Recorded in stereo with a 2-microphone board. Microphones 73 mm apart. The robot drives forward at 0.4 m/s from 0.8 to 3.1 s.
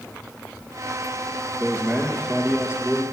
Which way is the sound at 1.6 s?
20° right (ahead or behind).